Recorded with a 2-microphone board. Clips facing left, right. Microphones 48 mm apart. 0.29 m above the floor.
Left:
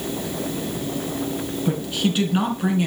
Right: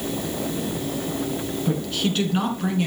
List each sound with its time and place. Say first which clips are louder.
1.6 s a woman speaking: left 2 dB; 10° left (ahead or behind), 3.5 m